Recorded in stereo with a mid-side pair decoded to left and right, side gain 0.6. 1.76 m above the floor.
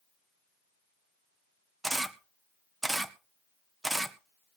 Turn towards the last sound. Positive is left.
turn(degrees=-10)